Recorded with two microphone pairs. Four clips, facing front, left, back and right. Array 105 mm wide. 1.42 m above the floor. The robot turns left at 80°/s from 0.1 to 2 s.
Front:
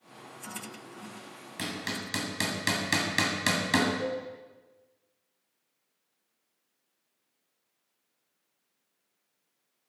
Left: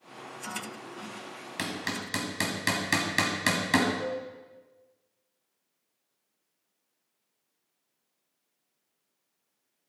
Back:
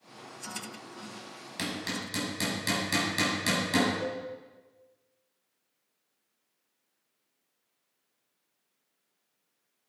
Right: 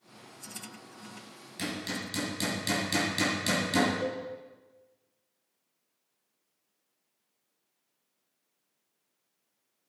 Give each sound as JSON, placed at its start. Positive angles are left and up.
{"t": 1.6, "sound": "hammering", "azimuth_deg": 95, "distance_m": 2.5}
{"t": 4.0, "sound": "a cowbell", "azimuth_deg": 5, "distance_m": 5.0}